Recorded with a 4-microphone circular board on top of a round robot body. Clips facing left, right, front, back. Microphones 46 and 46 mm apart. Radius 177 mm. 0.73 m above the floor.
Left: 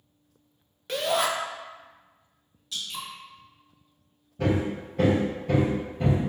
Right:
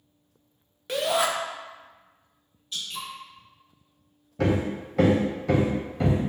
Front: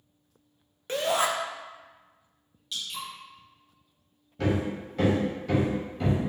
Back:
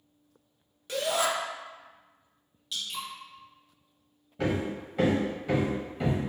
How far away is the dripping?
About 1.1 m.